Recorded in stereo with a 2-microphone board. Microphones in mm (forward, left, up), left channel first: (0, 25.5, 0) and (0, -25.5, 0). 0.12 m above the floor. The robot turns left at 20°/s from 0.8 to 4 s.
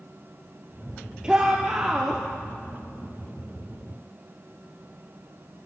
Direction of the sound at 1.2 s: 15° right (ahead or behind).